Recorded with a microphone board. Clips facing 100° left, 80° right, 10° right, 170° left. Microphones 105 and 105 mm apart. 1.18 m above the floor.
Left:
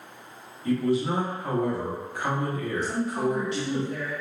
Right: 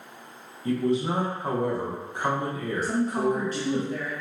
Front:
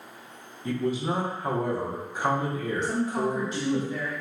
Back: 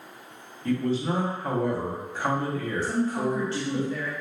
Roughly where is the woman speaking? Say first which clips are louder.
Right 3 dB, back 1 dB; right.